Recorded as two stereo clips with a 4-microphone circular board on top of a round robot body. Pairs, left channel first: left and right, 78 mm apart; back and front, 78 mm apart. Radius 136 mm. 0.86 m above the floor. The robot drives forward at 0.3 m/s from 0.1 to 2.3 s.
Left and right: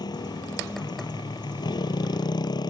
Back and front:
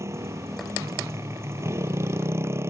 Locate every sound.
0.0 s a motorcycle: 55° left; by 2.7 s 60° left